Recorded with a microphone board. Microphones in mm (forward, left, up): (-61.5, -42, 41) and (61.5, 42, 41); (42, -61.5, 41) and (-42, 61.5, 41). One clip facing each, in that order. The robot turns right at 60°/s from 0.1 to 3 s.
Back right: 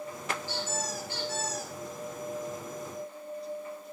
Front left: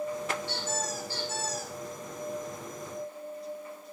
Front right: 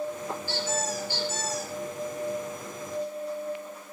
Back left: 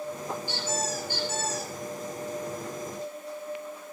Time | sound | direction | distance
0.5 | a squeak | 50° left | 4 m